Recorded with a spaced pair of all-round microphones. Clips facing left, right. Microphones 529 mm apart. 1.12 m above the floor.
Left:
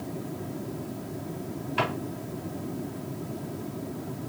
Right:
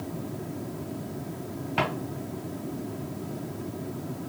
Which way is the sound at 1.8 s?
75° right (ahead or behind).